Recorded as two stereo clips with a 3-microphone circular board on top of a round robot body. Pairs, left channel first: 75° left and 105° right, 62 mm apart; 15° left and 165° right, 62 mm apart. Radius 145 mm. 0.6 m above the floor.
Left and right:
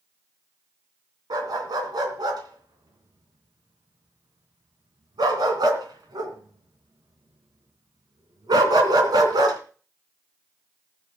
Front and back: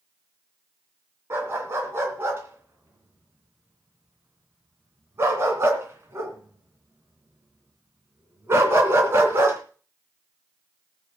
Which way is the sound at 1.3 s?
110° right.